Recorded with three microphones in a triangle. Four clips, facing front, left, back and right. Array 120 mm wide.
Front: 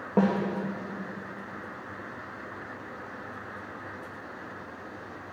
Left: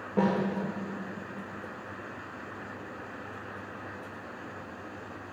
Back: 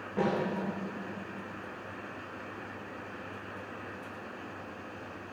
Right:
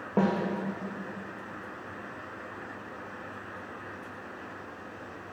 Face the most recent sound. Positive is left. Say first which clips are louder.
# even, front 6 dB
turn(degrees=-30)